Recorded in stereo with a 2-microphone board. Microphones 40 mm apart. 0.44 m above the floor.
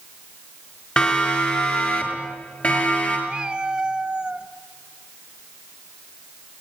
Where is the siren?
30° left (ahead or behind), 5.5 m; by 3.2 s 40° left (ahead or behind), 8.5 m.